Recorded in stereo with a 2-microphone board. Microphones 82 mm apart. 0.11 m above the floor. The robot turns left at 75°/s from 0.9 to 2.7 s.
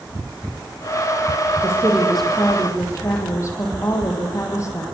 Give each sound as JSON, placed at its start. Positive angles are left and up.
{"t": 1.6, "sound": "a woman speaking", "azimuth_deg": -140, "distance_m": 4.5}